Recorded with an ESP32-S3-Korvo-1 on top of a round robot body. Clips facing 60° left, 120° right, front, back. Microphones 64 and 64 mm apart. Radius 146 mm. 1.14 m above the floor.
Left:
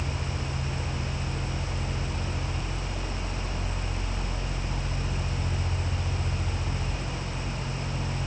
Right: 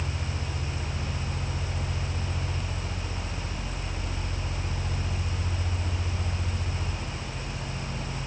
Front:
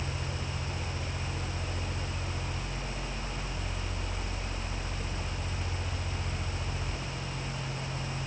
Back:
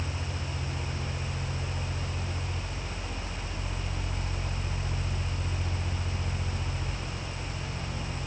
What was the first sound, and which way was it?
Only background noise.